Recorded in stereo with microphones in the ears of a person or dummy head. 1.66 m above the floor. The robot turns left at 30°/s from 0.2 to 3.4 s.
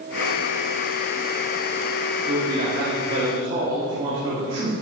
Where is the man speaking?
120° right, 1.9 m; by 4.7 s 155° right, 1.9 m.